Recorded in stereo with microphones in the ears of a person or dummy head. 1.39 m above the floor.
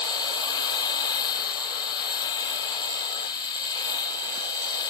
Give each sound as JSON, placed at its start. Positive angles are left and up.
{"t": 0.0, "sound": "a machine running", "side_deg": 30}